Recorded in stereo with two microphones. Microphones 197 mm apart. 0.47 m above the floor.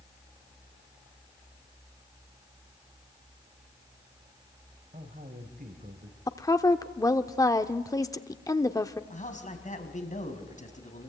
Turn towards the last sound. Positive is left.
turn(degrees=40)  # may be behind; listen again after turning